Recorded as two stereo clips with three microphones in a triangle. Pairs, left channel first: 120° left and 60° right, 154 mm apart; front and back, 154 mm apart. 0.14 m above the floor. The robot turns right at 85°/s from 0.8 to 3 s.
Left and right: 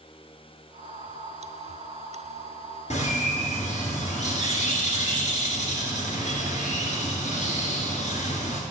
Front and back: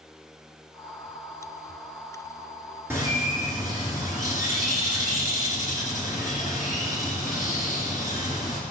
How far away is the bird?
About 2.5 m.